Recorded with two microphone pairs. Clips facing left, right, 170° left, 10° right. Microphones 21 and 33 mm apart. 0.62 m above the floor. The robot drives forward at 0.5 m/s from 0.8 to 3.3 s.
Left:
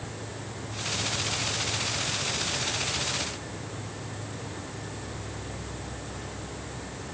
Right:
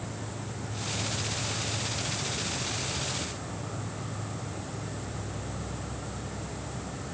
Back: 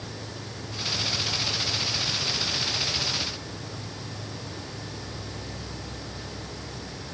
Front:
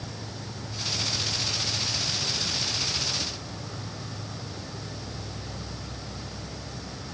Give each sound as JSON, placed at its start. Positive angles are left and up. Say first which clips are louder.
{"t": 0.0, "sound": "an insect", "louder": "even, back 1 dB", "azimuth_deg": -55}